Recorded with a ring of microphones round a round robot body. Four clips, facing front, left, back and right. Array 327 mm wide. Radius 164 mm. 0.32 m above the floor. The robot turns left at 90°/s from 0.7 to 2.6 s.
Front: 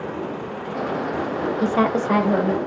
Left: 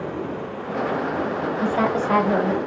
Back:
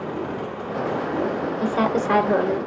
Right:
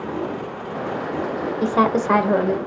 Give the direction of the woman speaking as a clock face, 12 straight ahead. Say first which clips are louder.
Right 4 dB, front 2 dB; 2 o'clock.